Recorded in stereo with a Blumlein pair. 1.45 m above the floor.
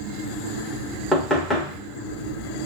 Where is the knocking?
15° left, 1.1 m.